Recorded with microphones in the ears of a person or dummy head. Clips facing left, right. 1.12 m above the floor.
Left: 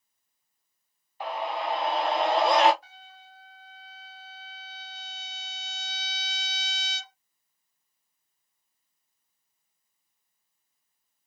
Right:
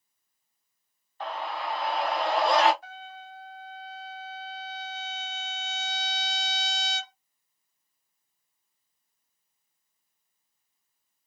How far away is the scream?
About 0.6 m.